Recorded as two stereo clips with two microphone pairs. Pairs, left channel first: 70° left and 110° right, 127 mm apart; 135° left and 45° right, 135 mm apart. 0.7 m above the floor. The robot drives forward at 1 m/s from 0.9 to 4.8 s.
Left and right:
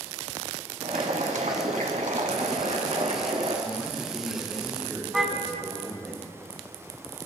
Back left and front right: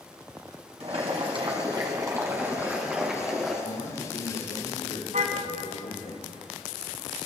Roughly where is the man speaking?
Behind left.